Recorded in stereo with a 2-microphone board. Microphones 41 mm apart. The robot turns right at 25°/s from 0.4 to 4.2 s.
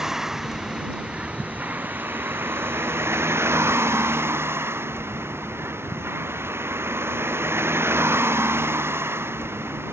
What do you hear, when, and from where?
0.0 s a vehicle: 170° right; by 9.9 s 75° right